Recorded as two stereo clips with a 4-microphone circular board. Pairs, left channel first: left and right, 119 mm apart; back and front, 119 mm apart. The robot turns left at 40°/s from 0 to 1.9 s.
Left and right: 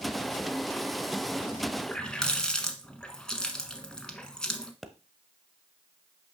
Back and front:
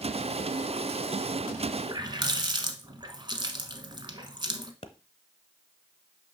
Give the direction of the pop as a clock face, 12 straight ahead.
6 o'clock.